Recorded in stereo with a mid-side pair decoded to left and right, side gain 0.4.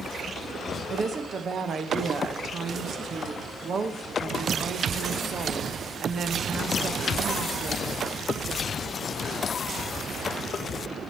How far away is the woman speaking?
About 1.0 m.